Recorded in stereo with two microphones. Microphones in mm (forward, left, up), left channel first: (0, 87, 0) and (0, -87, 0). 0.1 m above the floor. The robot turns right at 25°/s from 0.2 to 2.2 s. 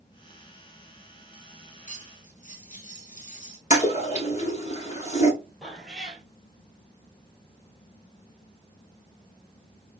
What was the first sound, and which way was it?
Cutlery clinking, 45° left (ahead or behind).